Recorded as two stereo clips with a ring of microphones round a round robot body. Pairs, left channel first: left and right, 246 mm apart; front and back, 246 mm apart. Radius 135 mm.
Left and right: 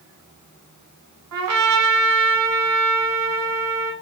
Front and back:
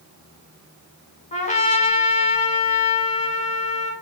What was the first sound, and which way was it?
A trumpet, 60° right.